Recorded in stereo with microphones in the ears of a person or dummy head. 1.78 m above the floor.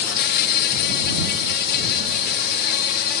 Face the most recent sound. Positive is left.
turn(degrees=55)  # may be behind; listen again after turning